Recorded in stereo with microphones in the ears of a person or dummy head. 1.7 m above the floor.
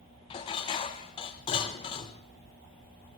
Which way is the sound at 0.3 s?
35° left (ahead or behind).